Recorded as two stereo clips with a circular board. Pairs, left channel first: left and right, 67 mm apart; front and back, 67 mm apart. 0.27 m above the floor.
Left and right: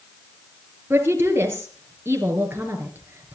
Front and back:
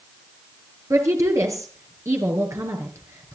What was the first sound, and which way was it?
A woman speaking, 140° right.